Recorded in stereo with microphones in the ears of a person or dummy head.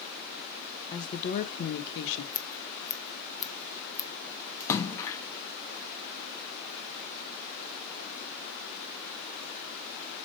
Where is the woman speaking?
20° left (ahead or behind), 0.7 m; by 2.2 s 65° left (ahead or behind), 1.2 m.